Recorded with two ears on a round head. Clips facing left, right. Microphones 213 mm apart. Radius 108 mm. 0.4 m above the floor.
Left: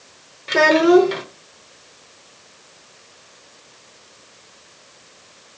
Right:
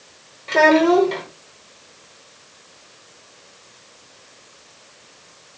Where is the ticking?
I don't hear ticking.